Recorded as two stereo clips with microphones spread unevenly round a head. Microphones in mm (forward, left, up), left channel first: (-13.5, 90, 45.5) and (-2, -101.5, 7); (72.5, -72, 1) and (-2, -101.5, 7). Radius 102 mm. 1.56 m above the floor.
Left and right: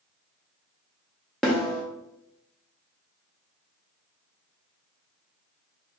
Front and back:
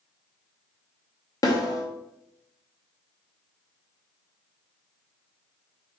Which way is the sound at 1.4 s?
20° left.